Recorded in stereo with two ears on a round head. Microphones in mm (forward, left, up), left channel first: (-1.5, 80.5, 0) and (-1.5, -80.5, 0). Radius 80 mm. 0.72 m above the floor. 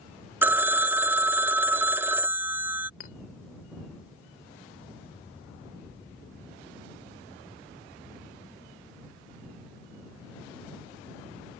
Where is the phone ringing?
10° right (ahead or behind).